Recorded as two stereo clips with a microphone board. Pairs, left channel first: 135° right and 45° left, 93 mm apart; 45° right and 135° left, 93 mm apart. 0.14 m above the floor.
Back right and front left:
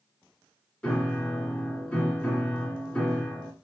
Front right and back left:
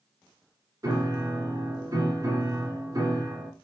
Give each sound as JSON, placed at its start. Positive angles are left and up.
{"t": 0.8, "sound": "a piano", "azimuth_deg": 155, "distance_m": 1.1}